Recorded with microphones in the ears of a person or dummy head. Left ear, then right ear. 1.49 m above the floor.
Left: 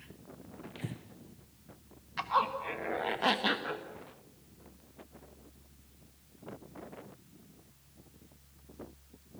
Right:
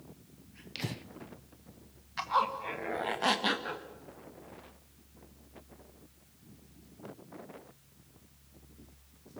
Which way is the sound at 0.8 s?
35° right (ahead or behind).